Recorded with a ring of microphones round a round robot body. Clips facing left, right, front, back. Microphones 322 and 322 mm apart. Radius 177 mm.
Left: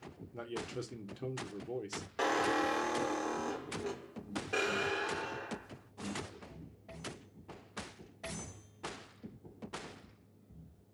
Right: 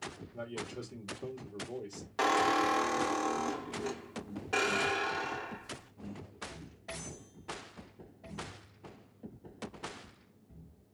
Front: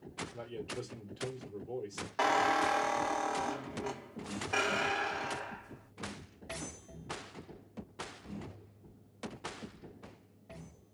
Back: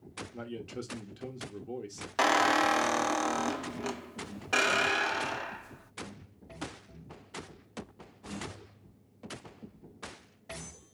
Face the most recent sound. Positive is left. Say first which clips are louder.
# right 2 dB, back 4 dB
turn(degrees=-165)